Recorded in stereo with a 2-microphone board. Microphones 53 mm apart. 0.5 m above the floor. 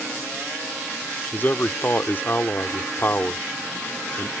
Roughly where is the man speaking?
Left.